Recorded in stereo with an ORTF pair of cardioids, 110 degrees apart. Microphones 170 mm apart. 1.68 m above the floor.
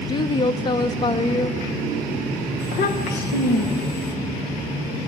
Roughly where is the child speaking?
Left.